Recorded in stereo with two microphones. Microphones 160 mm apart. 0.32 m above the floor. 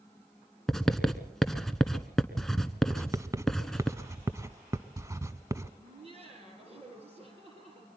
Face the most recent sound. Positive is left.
turn(degrees=-40)  # may be behind; listen again after turning